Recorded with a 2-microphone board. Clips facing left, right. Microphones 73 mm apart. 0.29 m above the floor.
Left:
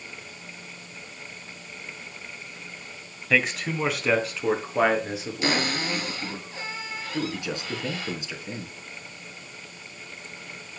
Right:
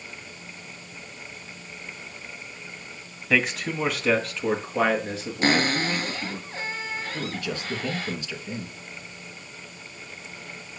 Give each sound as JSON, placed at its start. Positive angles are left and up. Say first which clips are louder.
{"t": 3.3, "sound": "a man speaking", "louder": "even", "side_deg": 0, "distance_m": 1.7}
{"t": 5.4, "sound": "a cupboard door", "louder": "right 4 dB", "side_deg": -40, "distance_m": 2.5}
{"t": 7.1, "sound": "a man speaking", "louder": "left 6 dB", "side_deg": 20, "distance_m": 3.0}